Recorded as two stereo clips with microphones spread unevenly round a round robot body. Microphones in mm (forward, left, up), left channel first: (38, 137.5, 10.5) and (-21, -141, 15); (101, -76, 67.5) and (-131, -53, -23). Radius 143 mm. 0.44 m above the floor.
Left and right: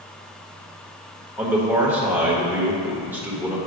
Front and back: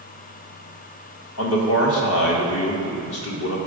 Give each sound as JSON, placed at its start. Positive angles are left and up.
{"t": 1.4, "sound": "a man speaking", "azimuth_deg": -20, "distance_m": 1.2}